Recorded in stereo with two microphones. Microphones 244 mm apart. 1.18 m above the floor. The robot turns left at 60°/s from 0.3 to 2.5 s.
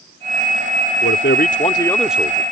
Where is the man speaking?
65° left; by 2.4 s 20° right.